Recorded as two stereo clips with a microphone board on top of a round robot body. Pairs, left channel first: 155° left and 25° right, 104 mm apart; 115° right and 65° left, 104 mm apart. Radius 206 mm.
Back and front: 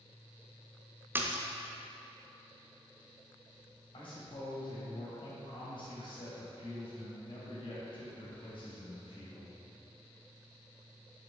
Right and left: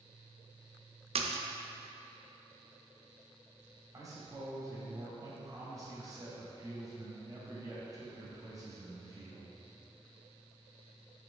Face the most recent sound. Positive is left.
turn(degrees=125)